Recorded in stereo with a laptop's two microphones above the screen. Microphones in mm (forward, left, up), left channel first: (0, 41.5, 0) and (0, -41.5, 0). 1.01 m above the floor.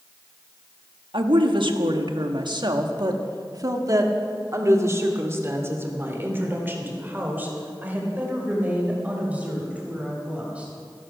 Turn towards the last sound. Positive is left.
turn(degrees=-15)  # may be behind; listen again after turning